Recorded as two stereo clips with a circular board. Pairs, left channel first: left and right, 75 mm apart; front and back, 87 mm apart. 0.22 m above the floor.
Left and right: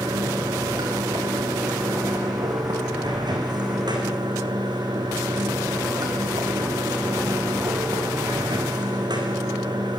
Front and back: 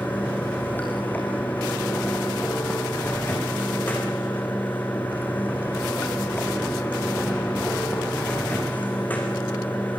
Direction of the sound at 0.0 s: 70° right.